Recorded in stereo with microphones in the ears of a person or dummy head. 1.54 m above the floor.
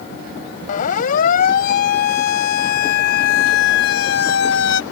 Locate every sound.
0.7 s a siren: 50° left (ahead or behind); by 4.8 s 80° left